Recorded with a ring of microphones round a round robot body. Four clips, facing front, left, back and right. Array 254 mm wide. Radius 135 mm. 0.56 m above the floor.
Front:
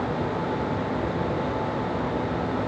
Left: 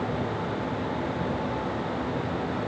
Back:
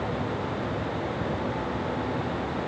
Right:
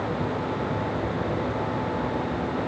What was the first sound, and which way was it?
Only background noise.